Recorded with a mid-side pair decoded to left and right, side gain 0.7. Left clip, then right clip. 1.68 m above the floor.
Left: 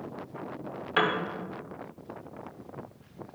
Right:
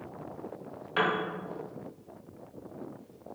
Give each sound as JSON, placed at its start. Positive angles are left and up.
{"t": 1.0, "sound": "a piano", "azimuth_deg": 25, "distance_m": 0.8}